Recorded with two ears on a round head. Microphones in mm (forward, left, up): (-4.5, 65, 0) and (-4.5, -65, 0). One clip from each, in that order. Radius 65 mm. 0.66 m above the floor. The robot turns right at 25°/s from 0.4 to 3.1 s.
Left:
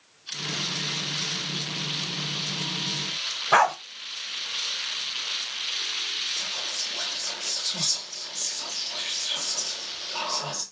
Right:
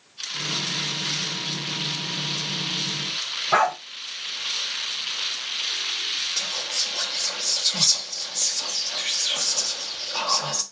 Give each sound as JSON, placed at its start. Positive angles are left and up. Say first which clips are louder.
{"t": 3.5, "sound": "a dog barking", "louder": "left 1 dB", "side_deg": 55, "distance_m": 0.7}
{"t": 6.4, "sound": "whispering", "louder": "right 4 dB", "side_deg": -30, "distance_m": 1.0}